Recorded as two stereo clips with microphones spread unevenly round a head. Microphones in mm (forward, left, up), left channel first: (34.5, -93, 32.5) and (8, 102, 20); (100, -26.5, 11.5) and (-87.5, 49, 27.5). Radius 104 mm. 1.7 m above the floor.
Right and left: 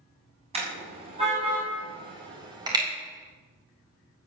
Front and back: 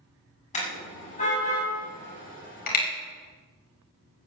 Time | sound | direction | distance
0.5 | a car horn | 35° left | 8 m